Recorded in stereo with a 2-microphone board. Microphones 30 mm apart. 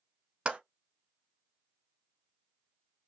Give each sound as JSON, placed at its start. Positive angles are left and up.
{"t": 0.5, "sound": "a clap", "side_deg": -35, "distance_m": 1.0}